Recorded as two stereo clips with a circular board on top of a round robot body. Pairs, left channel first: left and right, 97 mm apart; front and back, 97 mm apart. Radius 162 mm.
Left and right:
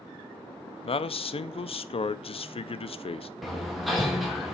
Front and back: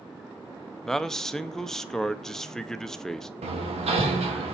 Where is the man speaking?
85° left, 0.7 m.